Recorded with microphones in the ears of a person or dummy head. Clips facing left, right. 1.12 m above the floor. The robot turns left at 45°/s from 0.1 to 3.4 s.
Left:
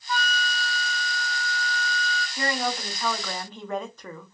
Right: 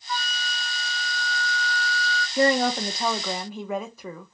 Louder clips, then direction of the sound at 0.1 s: Left 4 dB; 25° left.